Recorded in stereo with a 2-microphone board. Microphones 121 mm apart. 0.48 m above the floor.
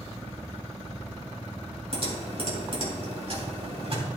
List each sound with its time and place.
1.9 s typing on a keyboard: 55° right (ahead or behind), 3.5 m